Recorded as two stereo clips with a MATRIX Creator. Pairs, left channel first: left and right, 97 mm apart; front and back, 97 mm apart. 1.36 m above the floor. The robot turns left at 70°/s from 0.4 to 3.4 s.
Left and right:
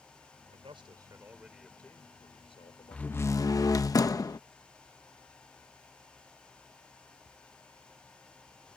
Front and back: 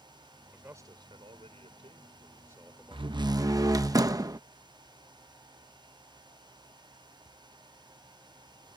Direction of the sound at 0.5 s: 105° right.